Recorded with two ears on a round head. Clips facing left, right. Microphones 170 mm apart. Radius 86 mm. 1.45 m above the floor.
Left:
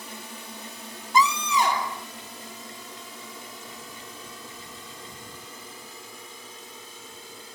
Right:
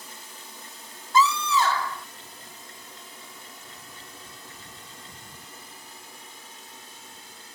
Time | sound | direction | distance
0.0 | a drone | 55° left (ahead or behind) | ?
1.1 | a scream | 15° left (ahead or behind) | ?